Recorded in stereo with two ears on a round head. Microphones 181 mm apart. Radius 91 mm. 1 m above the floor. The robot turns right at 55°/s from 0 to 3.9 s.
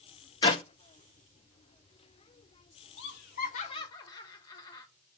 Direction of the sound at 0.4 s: 20° left (ahead or behind).